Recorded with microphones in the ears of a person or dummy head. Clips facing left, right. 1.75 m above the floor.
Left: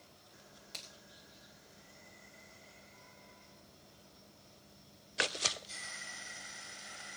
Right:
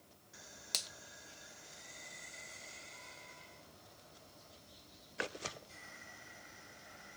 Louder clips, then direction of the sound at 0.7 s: Right 6 dB; 70° right (ahead or behind).